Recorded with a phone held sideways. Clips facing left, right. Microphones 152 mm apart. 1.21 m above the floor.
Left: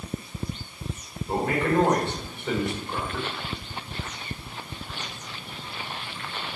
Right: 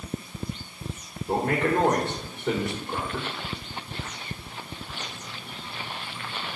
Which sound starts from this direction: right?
A man speaking, at 1.3 s.